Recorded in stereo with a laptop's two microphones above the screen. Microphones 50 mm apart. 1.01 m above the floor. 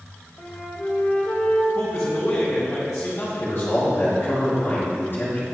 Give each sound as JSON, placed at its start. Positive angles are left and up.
{"t": 0.4, "sound": "a flute", "side_deg": 30, "distance_m": 0.9}
{"t": 1.7, "sound": "a man speaking", "side_deg": 50, "distance_m": 2.0}
{"t": 3.4, "sound": "a man speaking", "side_deg": 45, "distance_m": 2.5}